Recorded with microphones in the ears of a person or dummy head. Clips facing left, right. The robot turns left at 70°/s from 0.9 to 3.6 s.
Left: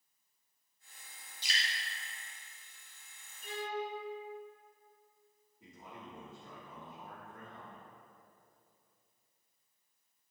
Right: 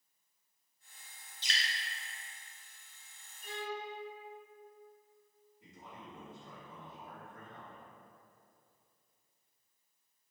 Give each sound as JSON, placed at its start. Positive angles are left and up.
{"t": 1.4, "sound": "dripping", "side_deg": 15, "distance_m": 0.6}
{"t": 3.4, "sound": "a violin", "side_deg": 55, "distance_m": 0.6}
{"t": 5.6, "sound": "a man speaking", "side_deg": 65, "distance_m": 1.2}